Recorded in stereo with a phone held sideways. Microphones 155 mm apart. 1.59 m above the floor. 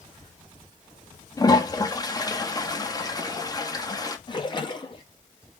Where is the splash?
30° left (ahead or behind), 1.2 m.